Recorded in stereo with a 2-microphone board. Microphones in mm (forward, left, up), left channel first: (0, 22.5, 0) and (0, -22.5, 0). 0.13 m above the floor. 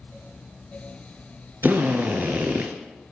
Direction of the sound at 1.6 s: 50° right (ahead or behind).